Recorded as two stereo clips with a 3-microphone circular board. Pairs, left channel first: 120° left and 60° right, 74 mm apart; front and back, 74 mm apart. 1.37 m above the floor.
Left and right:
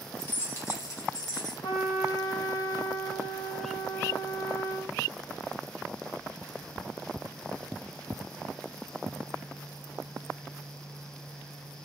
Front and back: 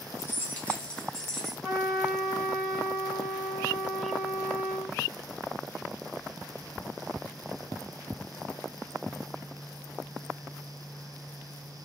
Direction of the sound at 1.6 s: 85° left.